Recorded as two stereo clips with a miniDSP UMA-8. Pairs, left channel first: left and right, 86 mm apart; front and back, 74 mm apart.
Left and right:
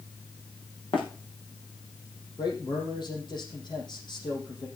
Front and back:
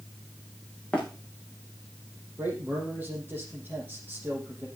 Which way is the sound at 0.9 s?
75° left.